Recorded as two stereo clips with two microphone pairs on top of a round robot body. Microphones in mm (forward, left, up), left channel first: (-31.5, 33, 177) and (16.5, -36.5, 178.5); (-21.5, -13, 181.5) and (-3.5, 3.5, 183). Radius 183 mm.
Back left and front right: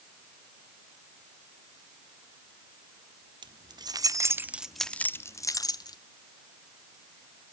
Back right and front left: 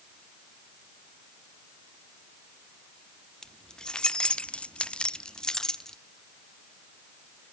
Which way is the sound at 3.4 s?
75° right.